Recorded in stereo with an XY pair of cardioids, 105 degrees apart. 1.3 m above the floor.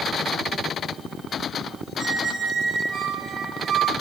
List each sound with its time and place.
2.0 s a squeak: 65° right, 0.5 m